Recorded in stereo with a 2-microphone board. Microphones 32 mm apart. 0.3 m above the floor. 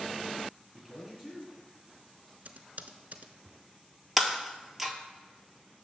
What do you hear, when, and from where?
0.7 s a man speaking: centre (ahead or behind), 3.5 m
2.5 s typing on a keyboard: 60° right (ahead or behind), 0.6 m
4.2 s breaking glass: 5° right (ahead or behind), 0.8 m